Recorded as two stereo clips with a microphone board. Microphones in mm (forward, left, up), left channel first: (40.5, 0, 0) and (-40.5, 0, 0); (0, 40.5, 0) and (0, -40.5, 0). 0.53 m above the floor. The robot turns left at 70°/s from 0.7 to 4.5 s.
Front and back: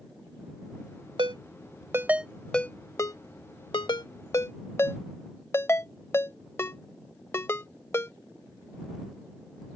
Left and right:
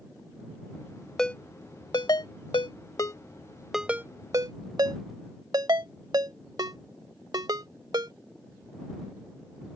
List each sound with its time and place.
1.2 s a ringtone: 175° left; by 8.1 s 55° right